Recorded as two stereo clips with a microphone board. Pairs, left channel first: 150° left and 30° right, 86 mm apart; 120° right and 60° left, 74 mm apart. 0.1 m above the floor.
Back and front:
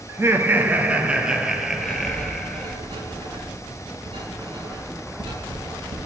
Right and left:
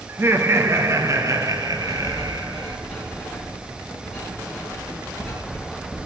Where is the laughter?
15° left, 1.7 m; by 2.8 s 70° left, 2.5 m.